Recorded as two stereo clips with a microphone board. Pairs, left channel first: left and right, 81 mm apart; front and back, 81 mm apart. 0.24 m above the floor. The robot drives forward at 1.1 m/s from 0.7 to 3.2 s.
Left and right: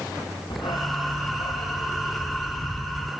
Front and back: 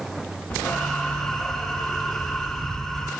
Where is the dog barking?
70° left; by 3.1 s 85° left.